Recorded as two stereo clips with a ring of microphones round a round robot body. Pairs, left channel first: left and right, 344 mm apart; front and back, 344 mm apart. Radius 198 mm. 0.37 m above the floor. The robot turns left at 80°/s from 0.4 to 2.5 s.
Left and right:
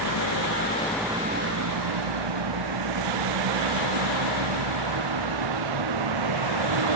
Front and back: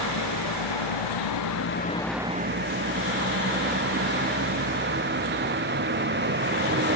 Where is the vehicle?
50° left; by 7.0 s 120° right.